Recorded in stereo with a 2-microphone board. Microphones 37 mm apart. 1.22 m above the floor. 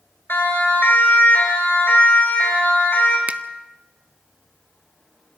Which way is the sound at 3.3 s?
45° right (ahead or behind).